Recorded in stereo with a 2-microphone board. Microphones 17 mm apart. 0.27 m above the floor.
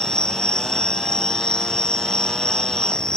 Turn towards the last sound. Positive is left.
turn(degrees=50)  # may be behind; listen again after turning